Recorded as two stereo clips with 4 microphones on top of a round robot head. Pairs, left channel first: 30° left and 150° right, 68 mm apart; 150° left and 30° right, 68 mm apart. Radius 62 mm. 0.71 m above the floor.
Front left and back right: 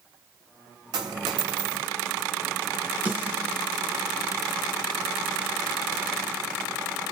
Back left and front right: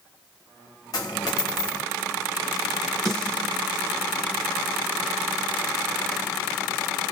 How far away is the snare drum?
About 1.0 m.